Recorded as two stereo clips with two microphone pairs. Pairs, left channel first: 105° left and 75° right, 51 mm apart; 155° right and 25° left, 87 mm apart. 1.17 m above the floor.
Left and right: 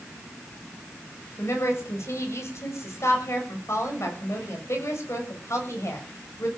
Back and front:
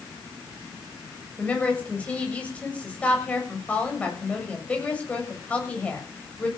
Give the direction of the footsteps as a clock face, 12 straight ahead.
No footsteps in this recording.